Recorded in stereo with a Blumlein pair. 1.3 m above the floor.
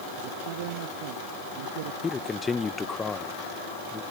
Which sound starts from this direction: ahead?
A man speaking, at 2.0 s.